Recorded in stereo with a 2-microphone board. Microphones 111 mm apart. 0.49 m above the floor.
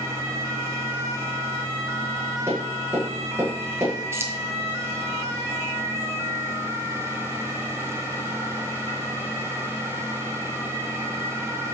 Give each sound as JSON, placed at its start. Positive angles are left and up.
{"t": 2.5, "sound": "tapping", "side_deg": -20, "distance_m": 7.0}
{"t": 4.1, "sound": "keys jangling", "side_deg": -25, "distance_m": 1.6}